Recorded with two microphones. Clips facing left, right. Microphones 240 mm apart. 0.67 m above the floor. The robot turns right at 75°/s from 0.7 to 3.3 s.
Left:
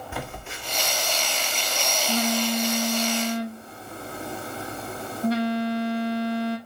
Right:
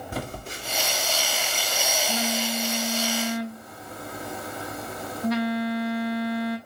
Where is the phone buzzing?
50° right, 1.5 m; by 6.6 s 145° left, 1.5 m.